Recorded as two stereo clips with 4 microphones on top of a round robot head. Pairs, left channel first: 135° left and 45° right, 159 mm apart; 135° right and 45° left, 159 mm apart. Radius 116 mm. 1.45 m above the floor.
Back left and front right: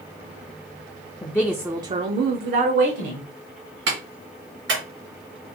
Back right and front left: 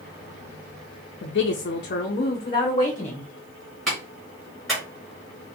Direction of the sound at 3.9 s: 45° right.